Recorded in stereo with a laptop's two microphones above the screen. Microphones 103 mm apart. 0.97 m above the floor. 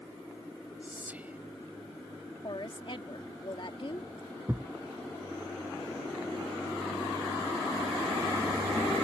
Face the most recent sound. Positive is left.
turn(degrees=-20)  # may be behind; listen again after turning